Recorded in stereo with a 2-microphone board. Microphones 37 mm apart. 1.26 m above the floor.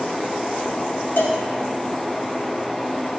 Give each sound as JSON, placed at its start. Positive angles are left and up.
{"t": 1.2, "sound": "a cowbell", "side_deg": 70, "distance_m": 1.9}